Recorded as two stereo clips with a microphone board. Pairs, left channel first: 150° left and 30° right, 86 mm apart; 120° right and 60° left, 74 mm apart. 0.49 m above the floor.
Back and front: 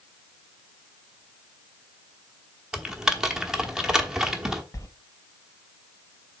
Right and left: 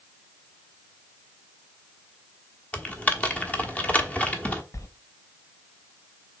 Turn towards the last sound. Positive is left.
turn(degrees=-160)